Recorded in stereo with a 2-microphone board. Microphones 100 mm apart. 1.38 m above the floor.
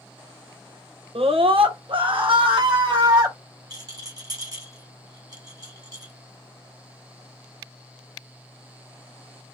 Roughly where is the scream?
Right.